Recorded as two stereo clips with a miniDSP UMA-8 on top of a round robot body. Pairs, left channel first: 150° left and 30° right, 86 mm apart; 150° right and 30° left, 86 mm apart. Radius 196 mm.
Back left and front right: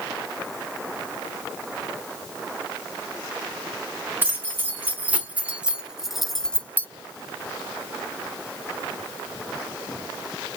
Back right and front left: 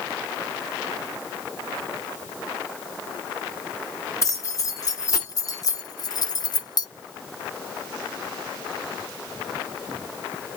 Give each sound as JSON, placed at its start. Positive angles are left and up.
{"t": 4.2, "sound": "keys jangling", "azimuth_deg": -95, "distance_m": 1.7}